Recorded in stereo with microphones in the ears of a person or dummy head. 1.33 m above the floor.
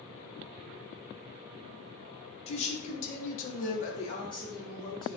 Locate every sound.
2.5 s a woman speaking: 35° left (ahead or behind), 0.9 m; by 5.2 s centre (ahead or behind), 0.8 m